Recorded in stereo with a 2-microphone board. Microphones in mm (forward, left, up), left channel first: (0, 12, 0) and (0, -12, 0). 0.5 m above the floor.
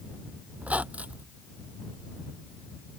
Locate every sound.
0.6 s a squeak: 70° right (ahead or behind)